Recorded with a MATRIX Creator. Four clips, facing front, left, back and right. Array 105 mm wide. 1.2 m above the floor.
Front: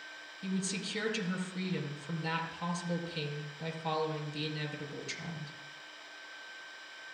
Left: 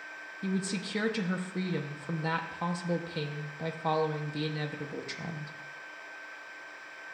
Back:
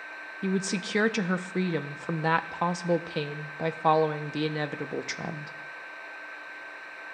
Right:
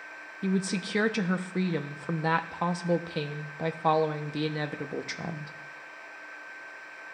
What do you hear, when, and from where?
0.4 s a woman speaking: 155° right, 0.7 m